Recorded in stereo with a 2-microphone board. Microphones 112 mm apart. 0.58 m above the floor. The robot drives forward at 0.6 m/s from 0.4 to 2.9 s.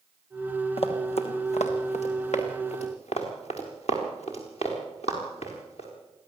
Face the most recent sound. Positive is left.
turn(degrees=70)  # may be behind; listen again after turning